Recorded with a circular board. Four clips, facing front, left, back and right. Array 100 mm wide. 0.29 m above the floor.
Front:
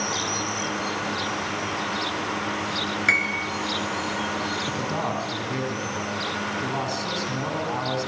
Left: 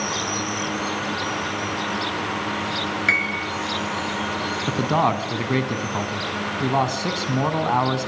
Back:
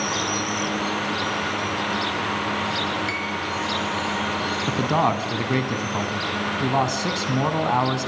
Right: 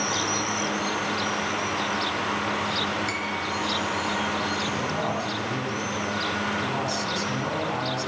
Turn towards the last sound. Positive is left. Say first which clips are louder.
# left 7 dB, back 10 dB
turn(degrees=130)